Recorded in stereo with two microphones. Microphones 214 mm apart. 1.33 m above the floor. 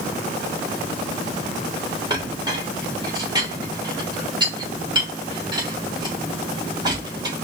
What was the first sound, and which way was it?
A clink, 20° right (ahead or behind).